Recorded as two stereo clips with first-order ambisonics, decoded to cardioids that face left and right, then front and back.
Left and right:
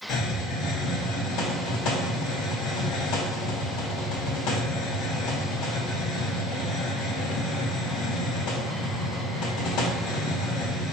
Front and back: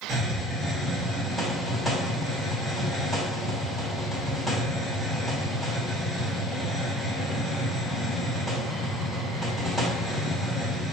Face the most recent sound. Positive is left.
turn(degrees=90)